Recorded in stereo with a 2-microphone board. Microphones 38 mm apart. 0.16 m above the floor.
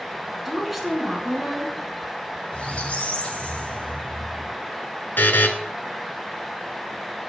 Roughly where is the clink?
I don't hear a clink.